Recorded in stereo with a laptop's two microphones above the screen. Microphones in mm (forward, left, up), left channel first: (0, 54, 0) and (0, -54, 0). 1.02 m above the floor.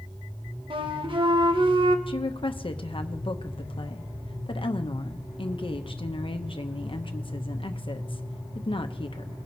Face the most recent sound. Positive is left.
turn(degrees=55)  # may be behind; listen again after turning